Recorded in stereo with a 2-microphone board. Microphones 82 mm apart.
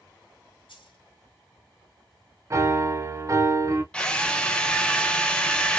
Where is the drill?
10° left (ahead or behind), 0.5 m.